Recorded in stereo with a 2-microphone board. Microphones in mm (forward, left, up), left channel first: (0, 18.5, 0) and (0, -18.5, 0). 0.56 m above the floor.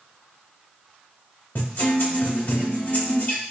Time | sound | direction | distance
1.6 | a guitar | 65° left (ahead or behind) | 2 m